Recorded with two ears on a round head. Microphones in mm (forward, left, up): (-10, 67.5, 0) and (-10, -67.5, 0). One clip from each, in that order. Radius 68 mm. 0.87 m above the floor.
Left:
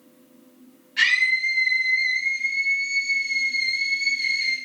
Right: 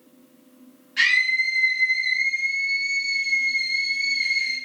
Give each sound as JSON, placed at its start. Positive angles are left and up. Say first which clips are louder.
{"t": 1.0, "sound": "a scream", "louder": "even", "side_deg": -15, "distance_m": 7.0}